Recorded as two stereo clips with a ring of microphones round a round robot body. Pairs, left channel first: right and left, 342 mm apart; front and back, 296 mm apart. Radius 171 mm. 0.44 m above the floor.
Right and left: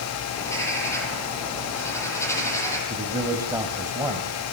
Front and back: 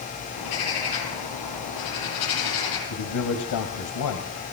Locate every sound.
0.4 s a bird: 10° right, 6.5 m
2.9 s a man speaking: 10° left, 3 m